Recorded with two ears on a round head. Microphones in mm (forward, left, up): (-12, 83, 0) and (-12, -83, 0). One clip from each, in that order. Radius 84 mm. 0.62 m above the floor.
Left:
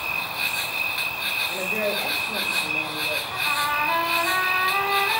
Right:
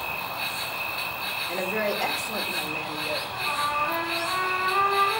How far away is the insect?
About 0.8 m.